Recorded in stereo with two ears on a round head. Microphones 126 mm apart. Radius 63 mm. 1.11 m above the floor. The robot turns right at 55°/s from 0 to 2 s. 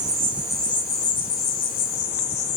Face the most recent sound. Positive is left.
turn(degrees=80)